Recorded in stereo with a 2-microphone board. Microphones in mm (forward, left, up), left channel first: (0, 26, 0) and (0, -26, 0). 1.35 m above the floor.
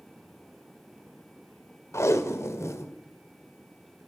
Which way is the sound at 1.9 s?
65° left (ahead or behind).